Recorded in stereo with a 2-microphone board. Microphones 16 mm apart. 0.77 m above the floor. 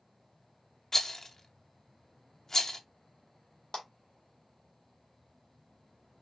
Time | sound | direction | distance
0.9 | a rattle | 35° left (ahead or behind) | 0.5 m
3.7 | a clap | 70° left (ahead or behind) | 1.8 m